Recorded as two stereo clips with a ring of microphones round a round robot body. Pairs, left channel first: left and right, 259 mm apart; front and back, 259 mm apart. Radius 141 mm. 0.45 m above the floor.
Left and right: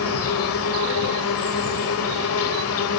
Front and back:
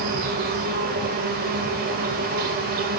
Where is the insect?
125° left, 1.6 m.